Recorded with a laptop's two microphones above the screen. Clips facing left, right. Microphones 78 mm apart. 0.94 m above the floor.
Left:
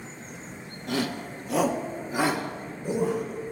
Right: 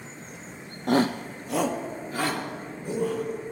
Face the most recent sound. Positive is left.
turn(degrees=20)  # may be behind; listen again after turning